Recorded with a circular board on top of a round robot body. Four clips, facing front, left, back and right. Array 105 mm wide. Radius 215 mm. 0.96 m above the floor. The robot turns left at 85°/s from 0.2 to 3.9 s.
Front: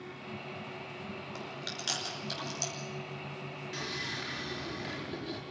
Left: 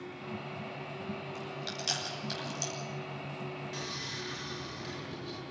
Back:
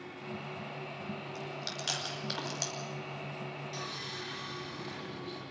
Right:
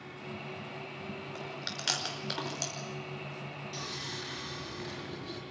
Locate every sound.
1.4 s chewing: 45° right, 5.5 m; by 2.7 s 160° right, 5.5 m
3.7 s sawing: 25° left, 6 m; by 5.4 s 10° left, 6 m